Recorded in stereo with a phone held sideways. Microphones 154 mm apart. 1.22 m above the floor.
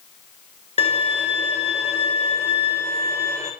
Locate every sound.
0.8 s a violin: 45° left (ahead or behind), 1.6 m